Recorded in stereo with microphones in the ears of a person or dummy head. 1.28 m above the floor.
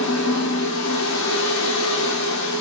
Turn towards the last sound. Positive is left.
turn(degrees=75)  # may be behind; listen again after turning